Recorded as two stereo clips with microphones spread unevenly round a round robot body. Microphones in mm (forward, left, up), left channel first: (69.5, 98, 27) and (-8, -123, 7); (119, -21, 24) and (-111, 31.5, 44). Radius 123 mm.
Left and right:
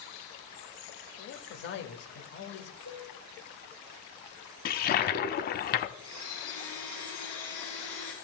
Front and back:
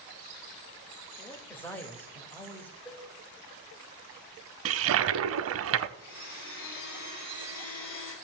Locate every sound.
1.2 s a man speaking: 60° left, 1.5 m
2.9 s a cowbell: 55° left, 3.5 m
4.7 s a toilet flushing: 130° left, 0.5 m
6.0 s a blender: 10° right, 6.5 m